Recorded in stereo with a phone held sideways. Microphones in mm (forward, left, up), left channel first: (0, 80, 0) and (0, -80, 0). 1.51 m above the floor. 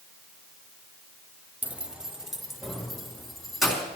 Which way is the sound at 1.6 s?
10° right (ahead or behind).